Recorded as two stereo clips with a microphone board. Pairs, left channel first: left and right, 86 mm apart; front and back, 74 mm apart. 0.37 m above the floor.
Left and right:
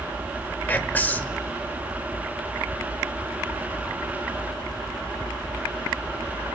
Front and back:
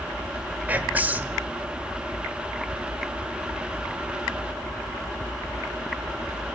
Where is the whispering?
140° left, 1.2 m.